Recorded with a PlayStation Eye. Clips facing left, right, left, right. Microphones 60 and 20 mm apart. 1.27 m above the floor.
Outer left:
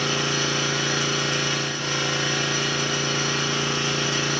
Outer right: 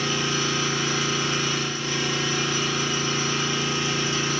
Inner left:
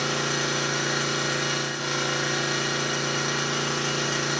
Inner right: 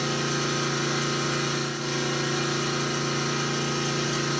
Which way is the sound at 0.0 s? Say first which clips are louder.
Outer left 1 dB, inner left 1 dB; 85° left.